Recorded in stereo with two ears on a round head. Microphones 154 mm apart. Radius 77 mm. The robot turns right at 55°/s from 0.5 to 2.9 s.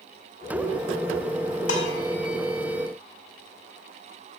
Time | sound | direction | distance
1.7 | dishes clattering | 85° left | 1.7 m